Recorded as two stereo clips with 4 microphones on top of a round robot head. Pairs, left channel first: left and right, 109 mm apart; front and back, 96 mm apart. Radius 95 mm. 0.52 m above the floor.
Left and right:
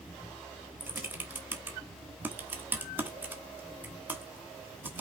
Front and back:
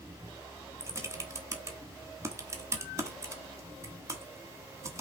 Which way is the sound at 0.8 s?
150° right.